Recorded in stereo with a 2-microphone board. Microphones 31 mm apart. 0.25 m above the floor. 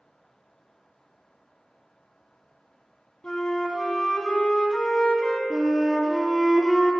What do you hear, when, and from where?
3.2 s a flute: 30° left (ahead or behind), 1.3 m
5.5 s a flute: 10° right (ahead or behind), 1.4 m